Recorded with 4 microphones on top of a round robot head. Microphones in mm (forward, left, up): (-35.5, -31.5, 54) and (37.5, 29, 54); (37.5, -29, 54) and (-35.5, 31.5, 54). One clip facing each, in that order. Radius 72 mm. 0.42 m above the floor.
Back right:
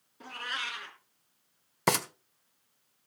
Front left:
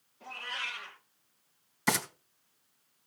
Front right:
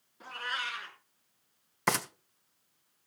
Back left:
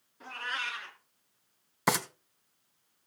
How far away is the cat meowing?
About 2.5 m.